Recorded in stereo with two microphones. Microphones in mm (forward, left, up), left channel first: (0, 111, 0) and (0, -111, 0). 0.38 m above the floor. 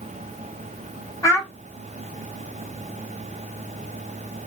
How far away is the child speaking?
About 2 m.